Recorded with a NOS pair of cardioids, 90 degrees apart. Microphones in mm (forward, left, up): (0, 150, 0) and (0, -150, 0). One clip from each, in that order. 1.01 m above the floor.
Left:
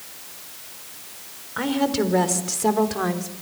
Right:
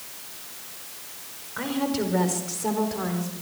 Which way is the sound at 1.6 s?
35° left.